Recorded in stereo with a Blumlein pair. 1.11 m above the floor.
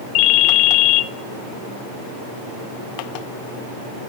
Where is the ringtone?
40° left, 1.0 m.